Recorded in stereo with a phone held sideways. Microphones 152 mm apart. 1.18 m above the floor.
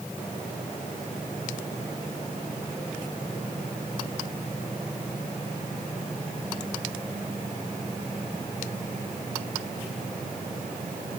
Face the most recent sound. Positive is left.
No sound to turn to.